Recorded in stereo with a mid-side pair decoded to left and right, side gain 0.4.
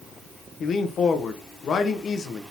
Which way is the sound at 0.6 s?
55° left.